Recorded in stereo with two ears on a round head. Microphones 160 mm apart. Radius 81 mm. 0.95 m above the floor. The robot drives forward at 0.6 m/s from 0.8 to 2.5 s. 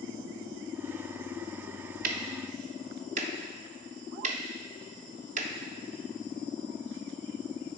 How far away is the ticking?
About 0.6 m.